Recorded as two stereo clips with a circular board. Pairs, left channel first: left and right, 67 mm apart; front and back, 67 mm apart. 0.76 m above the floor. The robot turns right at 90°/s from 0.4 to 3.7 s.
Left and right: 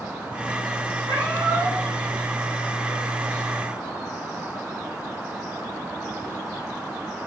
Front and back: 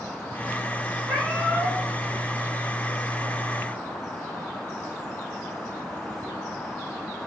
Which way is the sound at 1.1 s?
95° right.